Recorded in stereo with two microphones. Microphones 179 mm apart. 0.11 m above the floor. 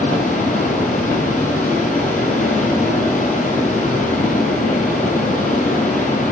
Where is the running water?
45° left (ahead or behind), 1.4 m.